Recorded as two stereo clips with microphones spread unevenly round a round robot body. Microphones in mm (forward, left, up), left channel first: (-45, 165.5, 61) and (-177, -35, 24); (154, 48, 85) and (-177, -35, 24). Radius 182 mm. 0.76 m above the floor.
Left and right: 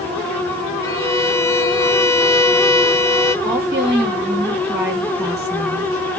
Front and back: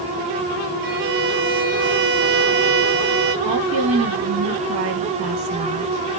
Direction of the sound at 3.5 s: 165° left.